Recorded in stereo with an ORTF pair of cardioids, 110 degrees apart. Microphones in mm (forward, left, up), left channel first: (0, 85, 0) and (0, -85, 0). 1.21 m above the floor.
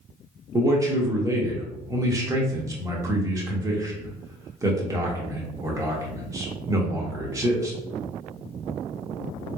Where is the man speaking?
20° right, 1.1 m.